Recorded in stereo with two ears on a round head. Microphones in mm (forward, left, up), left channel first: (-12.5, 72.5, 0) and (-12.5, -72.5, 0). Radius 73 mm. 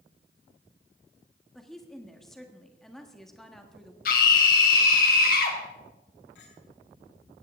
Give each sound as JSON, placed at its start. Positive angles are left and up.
{"t": 1.6, "sound": "a woman speaking", "side_deg": 0, "distance_m": 1.6}
{"t": 4.0, "sound": "a scream", "side_deg": 60, "distance_m": 3.5}
{"t": 6.3, "sound": "a clink", "side_deg": 85, "distance_m": 7.0}